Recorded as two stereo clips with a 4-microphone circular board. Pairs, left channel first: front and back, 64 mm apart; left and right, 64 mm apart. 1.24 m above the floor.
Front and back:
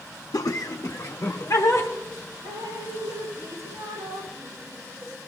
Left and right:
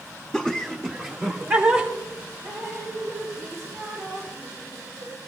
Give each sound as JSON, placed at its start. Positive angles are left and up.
{"t": 0.3, "sound": "laughter", "azimuth_deg": 0, "distance_m": 0.6}
{"t": 2.4, "sound": "dripping", "azimuth_deg": -145, "distance_m": 6.5}